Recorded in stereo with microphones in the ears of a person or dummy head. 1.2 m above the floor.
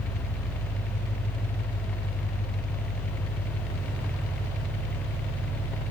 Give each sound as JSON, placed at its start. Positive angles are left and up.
{"t": 0.0, "sound": "an engine running", "side_deg": 50, "distance_m": 4.0}